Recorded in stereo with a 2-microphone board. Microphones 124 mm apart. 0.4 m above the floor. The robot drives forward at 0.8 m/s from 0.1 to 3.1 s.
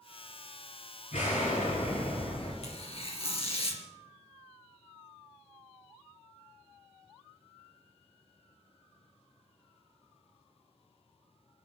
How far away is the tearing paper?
About 2.0 m.